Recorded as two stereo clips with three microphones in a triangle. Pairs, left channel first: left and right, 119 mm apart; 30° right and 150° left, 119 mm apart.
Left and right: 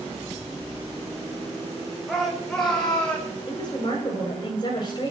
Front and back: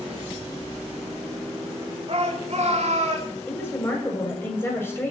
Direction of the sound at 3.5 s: 40° left.